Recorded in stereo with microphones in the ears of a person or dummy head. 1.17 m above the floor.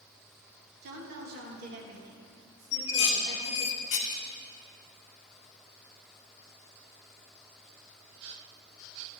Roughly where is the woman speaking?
Right.